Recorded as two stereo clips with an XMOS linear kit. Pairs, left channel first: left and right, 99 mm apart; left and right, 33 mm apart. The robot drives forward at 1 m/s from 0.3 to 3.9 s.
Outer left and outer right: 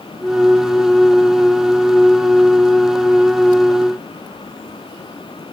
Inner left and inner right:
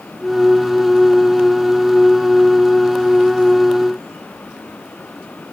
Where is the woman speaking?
I don't hear a woman speaking.